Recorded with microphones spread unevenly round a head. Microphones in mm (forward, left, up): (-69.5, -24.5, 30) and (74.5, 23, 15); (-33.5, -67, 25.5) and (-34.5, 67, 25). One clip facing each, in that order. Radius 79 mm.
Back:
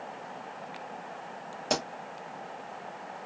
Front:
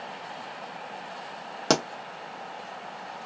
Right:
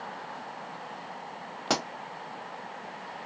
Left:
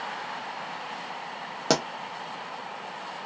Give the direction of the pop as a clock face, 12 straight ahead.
11 o'clock.